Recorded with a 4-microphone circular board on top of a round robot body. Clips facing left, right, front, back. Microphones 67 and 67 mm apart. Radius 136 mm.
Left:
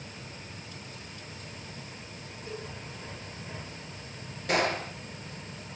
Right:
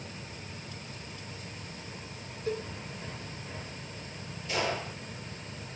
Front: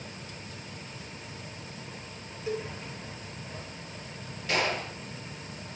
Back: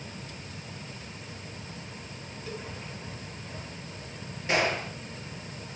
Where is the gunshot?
115° left, 7 m.